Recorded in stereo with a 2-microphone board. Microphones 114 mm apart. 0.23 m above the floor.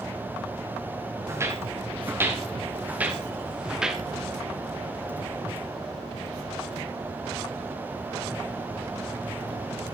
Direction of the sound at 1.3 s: 25° right (ahead or behind).